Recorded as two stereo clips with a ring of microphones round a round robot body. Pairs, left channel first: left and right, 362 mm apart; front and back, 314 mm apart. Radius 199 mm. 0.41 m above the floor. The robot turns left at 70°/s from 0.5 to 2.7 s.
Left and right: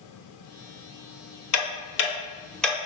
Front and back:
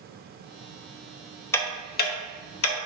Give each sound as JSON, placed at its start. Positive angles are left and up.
{"t": 1.5, "sound": "ticking", "azimuth_deg": 80, "distance_m": 0.7}